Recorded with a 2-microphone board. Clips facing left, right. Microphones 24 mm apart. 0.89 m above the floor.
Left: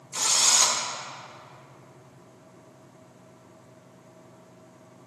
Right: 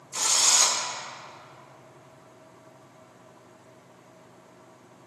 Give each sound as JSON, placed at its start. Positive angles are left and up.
{"t": 0.1, "sound": "a drill", "side_deg": 10, "distance_m": 0.6}